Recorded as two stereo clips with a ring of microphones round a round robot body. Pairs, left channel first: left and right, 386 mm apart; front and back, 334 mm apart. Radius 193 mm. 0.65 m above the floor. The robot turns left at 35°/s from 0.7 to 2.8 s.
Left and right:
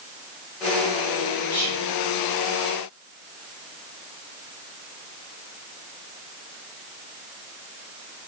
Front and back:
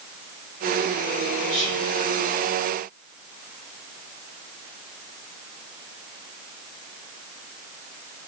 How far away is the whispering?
About 1.6 m.